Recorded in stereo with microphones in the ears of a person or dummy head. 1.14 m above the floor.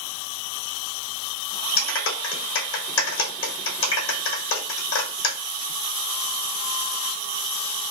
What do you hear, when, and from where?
1.8 s a clap: 70° left (ahead or behind), 1.4 m